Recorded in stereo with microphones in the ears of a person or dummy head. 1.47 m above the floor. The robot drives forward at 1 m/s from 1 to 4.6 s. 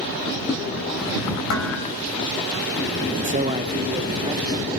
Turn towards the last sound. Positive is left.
turn(degrees=-15)  # may be behind; listen again after turning